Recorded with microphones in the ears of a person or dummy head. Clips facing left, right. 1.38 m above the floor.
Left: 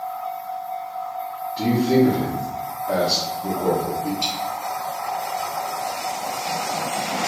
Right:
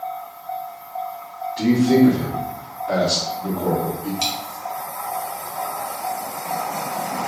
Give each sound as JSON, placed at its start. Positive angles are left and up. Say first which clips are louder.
{"t": 1.6, "sound": "a man speaking", "louder": "right 3 dB", "side_deg": 5, "distance_m": 0.9}
{"t": 4.2, "sound": "a dropped coin", "louder": "right 1 dB", "side_deg": -60, "distance_m": 1.3}